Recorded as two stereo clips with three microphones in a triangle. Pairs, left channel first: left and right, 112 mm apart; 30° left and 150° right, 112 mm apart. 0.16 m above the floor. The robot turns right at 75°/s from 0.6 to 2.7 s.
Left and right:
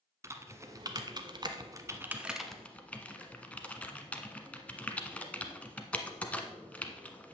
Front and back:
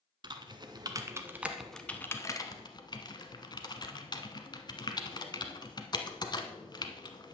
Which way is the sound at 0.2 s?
140° right.